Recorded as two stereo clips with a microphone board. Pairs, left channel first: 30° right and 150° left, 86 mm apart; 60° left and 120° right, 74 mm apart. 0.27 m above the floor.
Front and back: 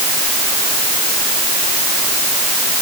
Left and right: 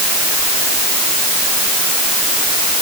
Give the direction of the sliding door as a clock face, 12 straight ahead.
I don't hear a sliding door.